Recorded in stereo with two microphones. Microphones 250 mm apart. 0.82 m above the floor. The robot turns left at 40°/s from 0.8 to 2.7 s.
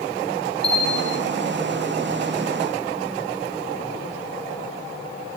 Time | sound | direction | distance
0.6 | a bell | 45° left (ahead or behind) | 6.5 m